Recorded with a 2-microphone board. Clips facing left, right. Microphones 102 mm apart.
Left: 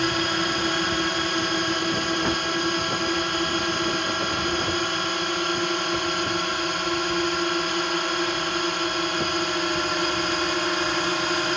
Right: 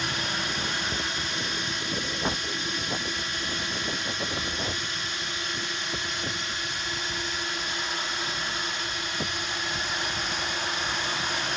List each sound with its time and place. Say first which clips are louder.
0.0 s a drone: left 8 dB; 65° left (ahead or behind)